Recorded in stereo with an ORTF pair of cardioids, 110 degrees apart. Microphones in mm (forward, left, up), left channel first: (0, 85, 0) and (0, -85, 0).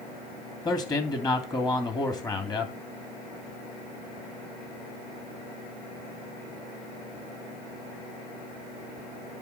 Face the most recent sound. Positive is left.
turn(degrees=20)